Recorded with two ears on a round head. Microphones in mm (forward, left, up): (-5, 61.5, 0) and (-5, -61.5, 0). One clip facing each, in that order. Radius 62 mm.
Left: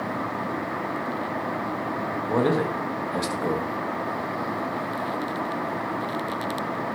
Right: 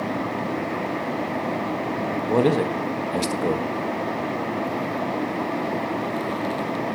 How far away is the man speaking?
About 1.4 m.